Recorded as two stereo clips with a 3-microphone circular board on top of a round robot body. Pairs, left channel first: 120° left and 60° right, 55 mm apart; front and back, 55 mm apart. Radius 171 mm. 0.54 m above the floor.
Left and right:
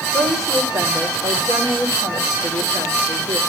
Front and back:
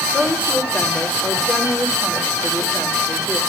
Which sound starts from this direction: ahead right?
A woman speaking, at 0.1 s.